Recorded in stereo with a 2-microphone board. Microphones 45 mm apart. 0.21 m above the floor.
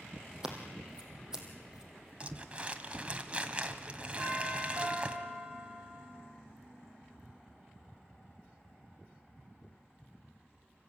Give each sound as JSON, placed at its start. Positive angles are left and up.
{"t": 0.4, "sound": "scissors", "side_deg": -15, "distance_m": 3.5}
{"t": 2.2, "sound": "crumpling", "side_deg": -25, "distance_m": 1.4}
{"t": 4.2, "sound": "a doorbell", "side_deg": -35, "distance_m": 10.0}